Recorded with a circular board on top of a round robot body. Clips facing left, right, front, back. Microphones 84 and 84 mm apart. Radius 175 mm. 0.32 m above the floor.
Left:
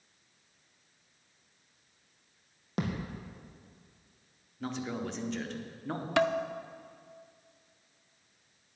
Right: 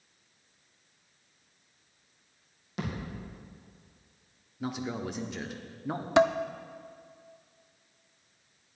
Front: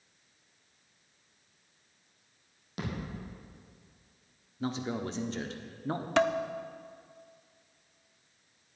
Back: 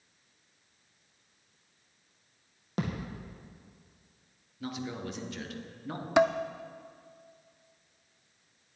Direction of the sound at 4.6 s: 15° right.